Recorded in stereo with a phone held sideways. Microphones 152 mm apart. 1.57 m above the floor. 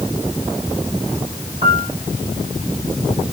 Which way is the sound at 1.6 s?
35° right (ahead or behind).